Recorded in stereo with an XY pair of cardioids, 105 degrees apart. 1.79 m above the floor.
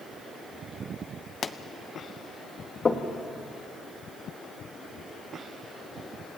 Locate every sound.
1.4 s a pop: 40° left, 1.1 m
2.9 s knocking: 30° left, 2.5 m